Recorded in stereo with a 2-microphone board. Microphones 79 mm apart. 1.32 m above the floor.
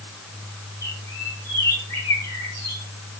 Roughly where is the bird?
Left.